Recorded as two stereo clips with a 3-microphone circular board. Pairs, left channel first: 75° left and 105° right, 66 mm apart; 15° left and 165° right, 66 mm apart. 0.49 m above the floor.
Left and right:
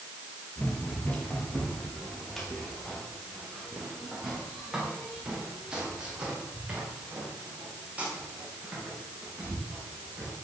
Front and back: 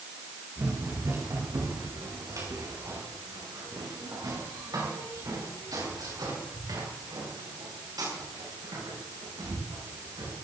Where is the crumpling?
I don't hear crumpling.